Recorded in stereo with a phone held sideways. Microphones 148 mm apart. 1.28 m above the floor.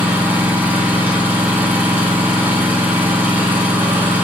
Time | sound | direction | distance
0.0 | an engine running | 15° right (ahead or behind) | 3.5 m